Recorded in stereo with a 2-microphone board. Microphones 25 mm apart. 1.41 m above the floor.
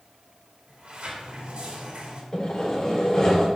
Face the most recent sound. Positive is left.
turn(degrees=30)  # may be behind; listen again after turning